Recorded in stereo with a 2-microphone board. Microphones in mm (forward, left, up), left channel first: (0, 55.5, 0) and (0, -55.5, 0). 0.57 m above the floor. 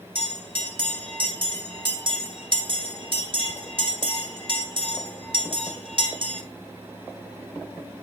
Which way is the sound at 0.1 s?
45° right (ahead or behind).